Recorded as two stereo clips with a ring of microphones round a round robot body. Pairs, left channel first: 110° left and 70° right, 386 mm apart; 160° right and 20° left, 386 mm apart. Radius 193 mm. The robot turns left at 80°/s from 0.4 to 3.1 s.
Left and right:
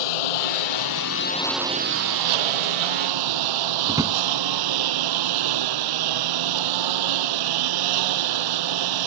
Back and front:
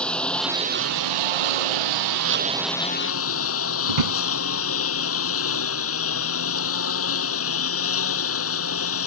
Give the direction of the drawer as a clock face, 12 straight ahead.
12 o'clock.